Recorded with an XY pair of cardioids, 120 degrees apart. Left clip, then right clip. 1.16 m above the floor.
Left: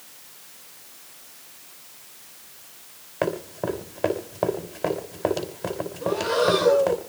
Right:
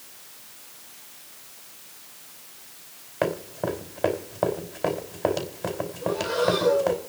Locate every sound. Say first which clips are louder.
3.2 s running footsteps: even; 5° left, 4.5 m
6.0 s breathing: left 3 dB; 35° left, 2 m